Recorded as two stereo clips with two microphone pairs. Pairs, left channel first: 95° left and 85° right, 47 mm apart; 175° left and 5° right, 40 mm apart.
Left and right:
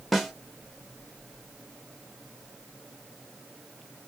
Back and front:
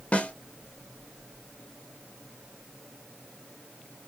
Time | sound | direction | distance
0.1 | a snare drum | 175° right | 0.7 m